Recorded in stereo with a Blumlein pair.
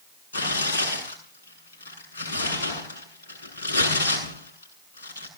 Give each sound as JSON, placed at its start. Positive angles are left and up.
{"t": 0.3, "sound": "tearing paper", "azimuth_deg": 65, "distance_m": 7.5}